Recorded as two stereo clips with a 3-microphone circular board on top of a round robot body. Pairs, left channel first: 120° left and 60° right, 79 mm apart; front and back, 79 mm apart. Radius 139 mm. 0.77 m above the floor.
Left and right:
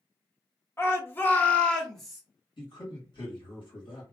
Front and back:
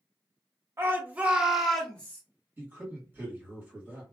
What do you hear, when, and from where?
0.8 s a shout: 145° left, 1.2 m; by 2.2 s 20° left, 1.0 m
2.6 s a man speaking: 115° left, 1.6 m